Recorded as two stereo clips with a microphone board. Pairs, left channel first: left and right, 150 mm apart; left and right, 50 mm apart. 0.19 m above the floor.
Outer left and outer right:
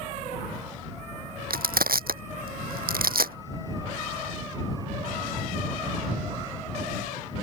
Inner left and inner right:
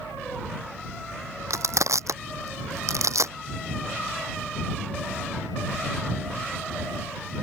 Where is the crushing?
85° right.